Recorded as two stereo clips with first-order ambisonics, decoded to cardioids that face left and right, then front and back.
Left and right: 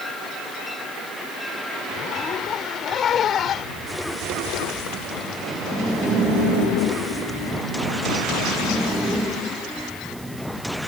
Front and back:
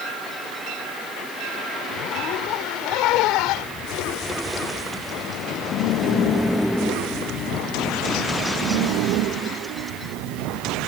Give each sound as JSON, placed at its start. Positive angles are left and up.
{"t": 1.9, "sound": "a zipper", "azimuth_deg": 30}